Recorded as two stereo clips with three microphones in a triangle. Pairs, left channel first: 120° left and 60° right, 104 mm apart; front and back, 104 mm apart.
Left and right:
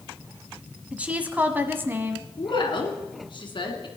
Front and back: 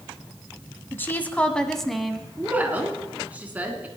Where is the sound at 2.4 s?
110° left, 2.5 m.